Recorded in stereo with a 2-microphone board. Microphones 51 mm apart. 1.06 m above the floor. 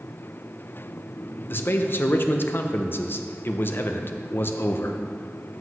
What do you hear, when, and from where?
1.5 s a man speaking: 50° left (ahead or behind), 0.5 m